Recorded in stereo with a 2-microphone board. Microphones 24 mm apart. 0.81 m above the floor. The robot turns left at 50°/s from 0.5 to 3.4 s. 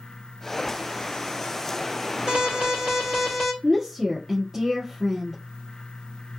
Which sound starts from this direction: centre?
A woman speaking, at 3.6 s.